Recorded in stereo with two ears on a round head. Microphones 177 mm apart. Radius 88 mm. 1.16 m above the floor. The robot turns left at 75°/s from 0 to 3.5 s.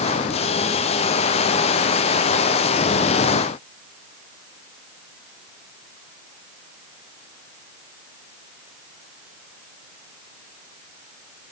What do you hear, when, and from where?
Only background noise.